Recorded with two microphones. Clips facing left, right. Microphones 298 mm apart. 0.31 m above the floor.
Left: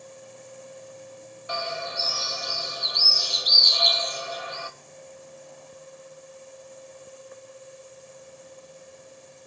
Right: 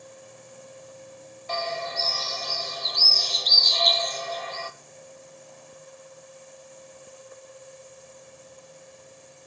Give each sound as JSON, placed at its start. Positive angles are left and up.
{"t": 1.5, "sound": "a bird", "side_deg": 10, "distance_m": 1.4}